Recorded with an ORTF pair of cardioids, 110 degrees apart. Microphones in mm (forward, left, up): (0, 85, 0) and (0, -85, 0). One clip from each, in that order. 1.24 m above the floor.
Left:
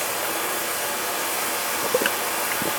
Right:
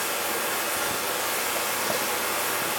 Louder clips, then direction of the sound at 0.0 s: Left 2 dB; 60° left.